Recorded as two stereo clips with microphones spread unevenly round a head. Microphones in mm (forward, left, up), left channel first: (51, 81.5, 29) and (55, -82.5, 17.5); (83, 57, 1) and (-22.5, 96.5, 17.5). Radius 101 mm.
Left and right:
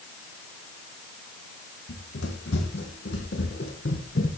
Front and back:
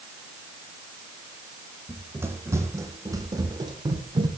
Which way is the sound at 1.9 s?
95° left.